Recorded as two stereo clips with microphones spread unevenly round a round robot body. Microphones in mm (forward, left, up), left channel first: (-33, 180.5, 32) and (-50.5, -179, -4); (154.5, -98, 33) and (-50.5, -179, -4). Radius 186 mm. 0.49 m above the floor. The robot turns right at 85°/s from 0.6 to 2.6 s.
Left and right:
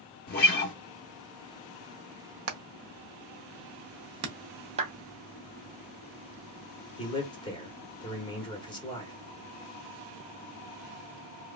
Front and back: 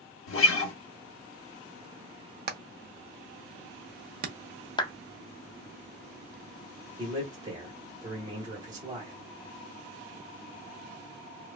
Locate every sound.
0.3 s a guitar: 25° left, 0.6 m; by 0.7 s 35° left, 0.6 m
2.5 s hammering: 135° right, 0.7 m; by 4.3 s 125° right, 0.7 m
4.8 s a clap: 50° right, 0.5 m
7.0 s a man speaking: 165° left, 1.1 m